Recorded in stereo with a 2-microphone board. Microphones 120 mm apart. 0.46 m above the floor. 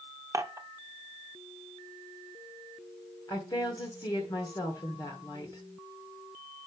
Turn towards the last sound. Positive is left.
turn(degrees=35)  # may be behind; listen again after turning